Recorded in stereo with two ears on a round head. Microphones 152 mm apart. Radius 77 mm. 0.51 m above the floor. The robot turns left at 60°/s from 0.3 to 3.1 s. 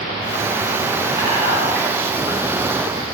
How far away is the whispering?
About 1.3 m.